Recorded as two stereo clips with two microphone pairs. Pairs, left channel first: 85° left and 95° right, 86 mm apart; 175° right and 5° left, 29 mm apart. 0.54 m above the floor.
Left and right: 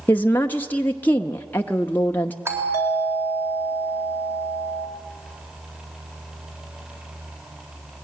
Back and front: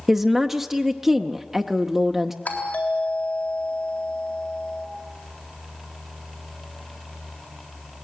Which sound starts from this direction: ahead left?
A woman speaking, at 0.1 s.